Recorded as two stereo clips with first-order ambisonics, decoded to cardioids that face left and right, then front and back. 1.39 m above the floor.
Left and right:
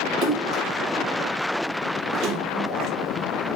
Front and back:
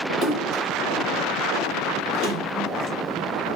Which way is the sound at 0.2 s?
140° right.